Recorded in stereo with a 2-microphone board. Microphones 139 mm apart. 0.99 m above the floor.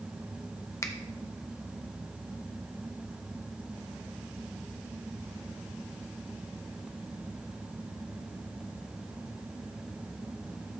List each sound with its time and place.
0.8 s a finger snap: 20° left (ahead or behind), 0.7 m